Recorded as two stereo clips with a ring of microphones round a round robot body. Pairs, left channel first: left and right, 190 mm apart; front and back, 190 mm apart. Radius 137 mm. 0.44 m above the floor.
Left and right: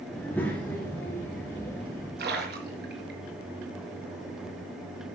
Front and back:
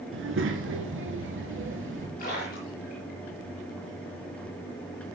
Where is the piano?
No piano in this recording.